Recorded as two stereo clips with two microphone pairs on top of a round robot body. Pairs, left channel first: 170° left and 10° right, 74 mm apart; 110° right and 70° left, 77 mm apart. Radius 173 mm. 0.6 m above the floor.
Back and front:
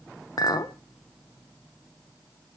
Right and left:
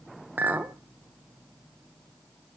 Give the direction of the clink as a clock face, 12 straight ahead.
7 o'clock.